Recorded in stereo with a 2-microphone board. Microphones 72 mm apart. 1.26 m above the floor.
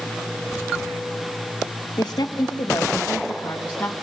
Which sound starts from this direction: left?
A woman speaking, at 2.0 s.